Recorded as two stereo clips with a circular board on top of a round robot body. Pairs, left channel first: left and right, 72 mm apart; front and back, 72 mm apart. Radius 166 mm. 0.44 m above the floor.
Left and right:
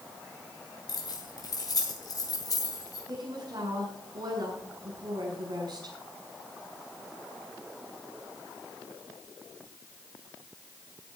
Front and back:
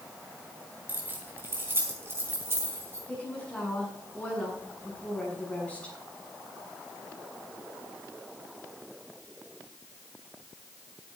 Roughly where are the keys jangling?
Behind left.